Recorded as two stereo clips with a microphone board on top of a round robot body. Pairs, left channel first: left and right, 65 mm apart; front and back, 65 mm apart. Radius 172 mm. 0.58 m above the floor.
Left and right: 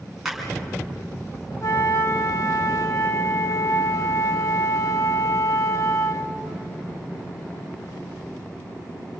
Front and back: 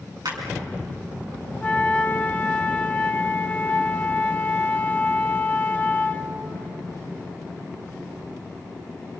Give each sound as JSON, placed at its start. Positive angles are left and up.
{"t": 0.2, "sound": "a clap", "azimuth_deg": -175, "distance_m": 6.5}
{"t": 1.6, "sound": "a flute", "azimuth_deg": 65, "distance_m": 1.6}